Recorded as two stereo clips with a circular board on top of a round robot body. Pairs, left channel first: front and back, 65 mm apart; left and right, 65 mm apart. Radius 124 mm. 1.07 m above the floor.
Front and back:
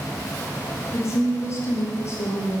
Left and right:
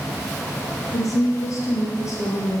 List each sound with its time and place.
0.9 s a woman speaking: 50° left, 1.1 m